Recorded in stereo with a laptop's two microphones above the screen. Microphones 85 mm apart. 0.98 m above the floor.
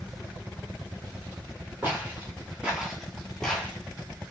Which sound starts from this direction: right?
Footsteps, at 1.8 s.